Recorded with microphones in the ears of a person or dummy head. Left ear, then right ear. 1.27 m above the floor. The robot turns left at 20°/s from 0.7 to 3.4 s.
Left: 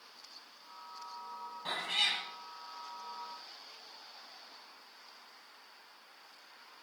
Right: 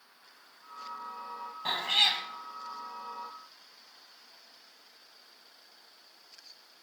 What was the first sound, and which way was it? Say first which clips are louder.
A cat meowing: right 6 dB; 20° right (ahead or behind).